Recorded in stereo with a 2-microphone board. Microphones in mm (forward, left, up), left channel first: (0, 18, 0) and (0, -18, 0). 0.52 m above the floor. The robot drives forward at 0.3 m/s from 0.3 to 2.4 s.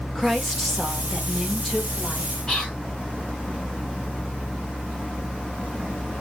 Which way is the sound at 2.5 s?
20° left (ahead or behind).